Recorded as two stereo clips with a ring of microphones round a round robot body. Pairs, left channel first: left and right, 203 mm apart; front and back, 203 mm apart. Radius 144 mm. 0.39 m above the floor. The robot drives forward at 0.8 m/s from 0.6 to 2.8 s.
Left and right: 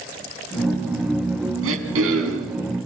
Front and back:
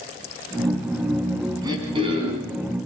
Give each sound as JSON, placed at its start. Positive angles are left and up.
{"t": 1.6, "sound": "throat clearing", "azimuth_deg": -105, "distance_m": 3.5}